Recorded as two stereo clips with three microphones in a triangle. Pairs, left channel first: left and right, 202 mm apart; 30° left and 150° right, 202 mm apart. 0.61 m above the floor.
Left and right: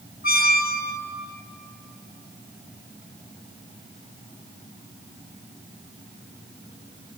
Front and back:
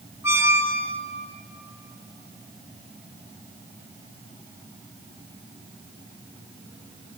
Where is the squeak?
135° left, 0.9 m.